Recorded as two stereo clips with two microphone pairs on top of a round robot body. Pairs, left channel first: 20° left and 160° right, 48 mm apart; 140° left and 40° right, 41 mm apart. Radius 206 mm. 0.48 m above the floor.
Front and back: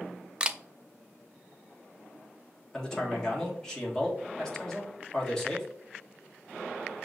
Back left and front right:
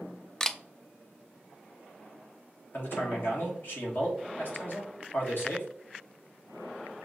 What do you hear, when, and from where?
0.4 s a camera shutter: 130° right, 0.5 m
2.7 s a man speaking: 105° left, 1.6 m